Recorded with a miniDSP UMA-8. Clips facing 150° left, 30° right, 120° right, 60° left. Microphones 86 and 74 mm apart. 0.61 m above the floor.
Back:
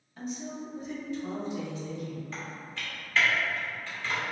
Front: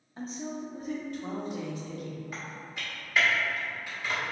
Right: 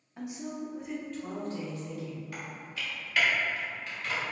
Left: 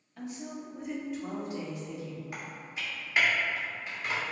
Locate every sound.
0.2 s a woman speaking: 65° right, 0.7 m; by 2.2 s 5° right, 1.3 m
2.3 s typing on a keyboard: 25° left, 1.2 m